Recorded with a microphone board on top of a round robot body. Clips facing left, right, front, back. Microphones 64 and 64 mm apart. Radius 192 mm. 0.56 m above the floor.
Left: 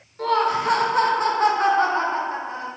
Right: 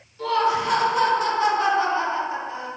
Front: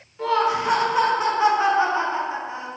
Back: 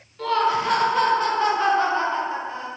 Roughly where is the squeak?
I don't hear a squeak.